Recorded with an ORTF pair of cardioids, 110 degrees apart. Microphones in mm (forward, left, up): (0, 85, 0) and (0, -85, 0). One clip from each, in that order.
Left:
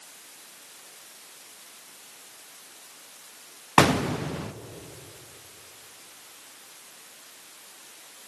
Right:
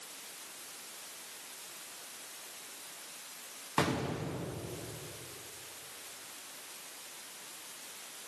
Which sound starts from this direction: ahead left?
An explosion, at 3.8 s.